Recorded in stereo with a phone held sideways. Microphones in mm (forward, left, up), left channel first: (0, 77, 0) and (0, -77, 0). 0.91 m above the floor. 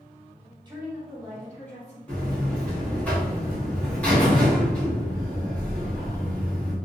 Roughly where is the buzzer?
Centre.